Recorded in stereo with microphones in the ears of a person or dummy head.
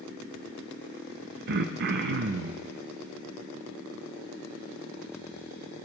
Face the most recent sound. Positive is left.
turn(degrees=-55)  # may be behind; listen again after turning